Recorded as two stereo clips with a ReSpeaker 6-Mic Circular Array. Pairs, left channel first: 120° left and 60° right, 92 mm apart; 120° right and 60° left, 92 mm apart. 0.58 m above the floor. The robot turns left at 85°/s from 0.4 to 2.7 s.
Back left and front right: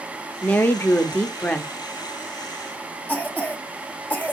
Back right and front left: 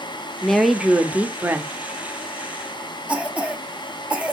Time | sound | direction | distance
0.4 | a woman speaking | 165° left | 0.6 m
3.1 | a cough | 110° left | 0.6 m